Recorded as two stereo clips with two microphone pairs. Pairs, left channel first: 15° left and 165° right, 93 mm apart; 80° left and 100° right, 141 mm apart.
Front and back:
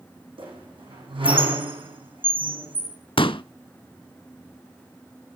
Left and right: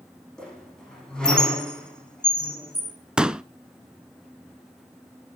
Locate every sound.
0.4 s a squeak: 165° left, 9 m
3.2 s a pop: 15° right, 0.6 m